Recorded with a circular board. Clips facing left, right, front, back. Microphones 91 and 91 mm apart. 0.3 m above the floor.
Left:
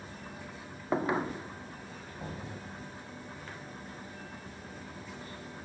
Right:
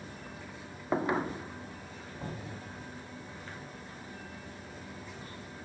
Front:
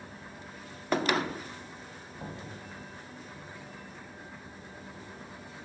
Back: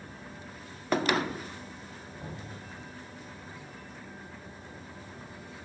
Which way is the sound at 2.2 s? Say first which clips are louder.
Even, front 2 dB; 15° left.